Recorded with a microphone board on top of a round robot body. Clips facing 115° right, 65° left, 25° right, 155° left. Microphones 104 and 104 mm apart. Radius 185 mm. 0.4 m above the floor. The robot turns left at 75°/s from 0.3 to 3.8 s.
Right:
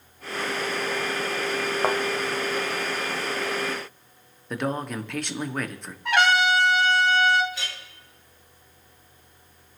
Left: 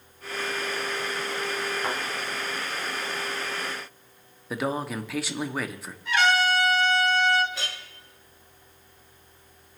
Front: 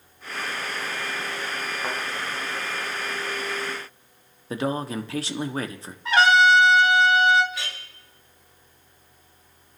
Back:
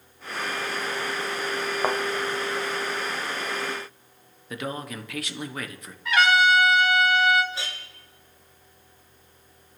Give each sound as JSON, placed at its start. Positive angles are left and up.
{"t": 1.8, "sound": "a thud", "azimuth_deg": -155, "distance_m": 1.1}
{"t": 4.5, "sound": "a man speaking", "azimuth_deg": -15, "distance_m": 1.4}
{"t": 6.0, "sound": "a trumpet", "azimuth_deg": -85, "distance_m": 1.3}
{"t": 7.5, "sound": "a clink", "azimuth_deg": 100, "distance_m": 6.0}